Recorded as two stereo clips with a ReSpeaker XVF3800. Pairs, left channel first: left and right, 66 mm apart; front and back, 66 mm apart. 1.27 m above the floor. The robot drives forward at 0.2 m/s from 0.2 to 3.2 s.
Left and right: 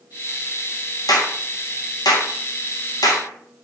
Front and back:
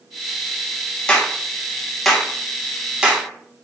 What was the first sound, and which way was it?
A clap, 75° left.